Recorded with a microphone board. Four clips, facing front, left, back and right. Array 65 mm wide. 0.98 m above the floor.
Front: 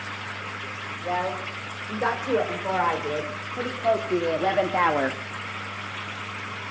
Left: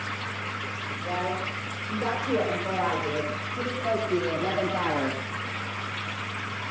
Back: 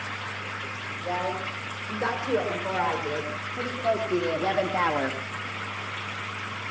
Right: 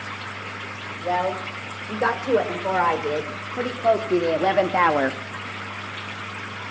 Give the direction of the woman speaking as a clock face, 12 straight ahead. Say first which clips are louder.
Right 7 dB, front 2 dB; 3 o'clock.